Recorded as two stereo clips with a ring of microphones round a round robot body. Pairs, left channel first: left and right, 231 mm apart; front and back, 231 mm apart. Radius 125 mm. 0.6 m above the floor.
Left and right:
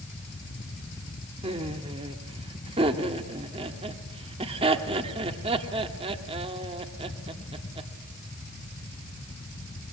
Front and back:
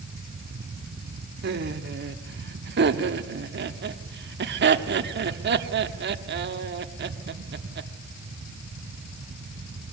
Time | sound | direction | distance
1.4 | laughter | 155° right | 1.3 m